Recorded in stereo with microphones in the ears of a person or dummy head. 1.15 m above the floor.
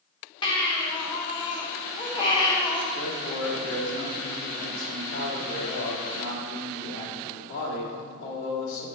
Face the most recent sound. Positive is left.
turn(degrees=75)  # may be behind; listen again after turning